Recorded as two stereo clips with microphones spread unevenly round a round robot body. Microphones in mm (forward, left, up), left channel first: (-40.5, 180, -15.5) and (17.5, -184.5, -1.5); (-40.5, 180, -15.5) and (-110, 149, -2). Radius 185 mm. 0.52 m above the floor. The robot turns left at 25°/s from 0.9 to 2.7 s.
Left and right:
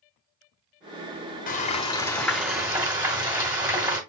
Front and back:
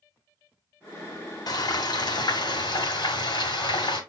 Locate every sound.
1.5 s frying: 30° left, 1.3 m; by 4.0 s straight ahead, 1.3 m